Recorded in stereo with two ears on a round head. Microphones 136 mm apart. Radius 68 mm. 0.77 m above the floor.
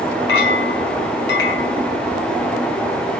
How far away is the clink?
About 4.5 m.